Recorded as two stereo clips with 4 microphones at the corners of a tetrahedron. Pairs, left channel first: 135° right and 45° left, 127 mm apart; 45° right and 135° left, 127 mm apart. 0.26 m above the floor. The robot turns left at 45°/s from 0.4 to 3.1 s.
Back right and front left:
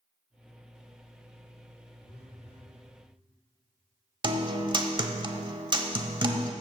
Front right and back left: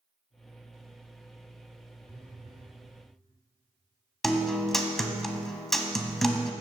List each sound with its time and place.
2.0 s a phone buzzing: 155° right, 4 m; by 2.8 s 170° left, 4 m
4.2 s a guitar: 40° left, 1.0 m